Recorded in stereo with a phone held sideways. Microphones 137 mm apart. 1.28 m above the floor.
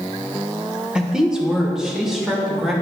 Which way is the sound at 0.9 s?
5° right (ahead or behind).